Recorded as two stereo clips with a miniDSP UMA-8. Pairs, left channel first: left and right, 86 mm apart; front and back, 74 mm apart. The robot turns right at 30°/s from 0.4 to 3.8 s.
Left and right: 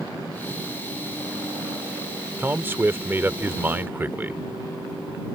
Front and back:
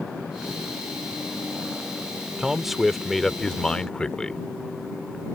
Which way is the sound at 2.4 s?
105° right.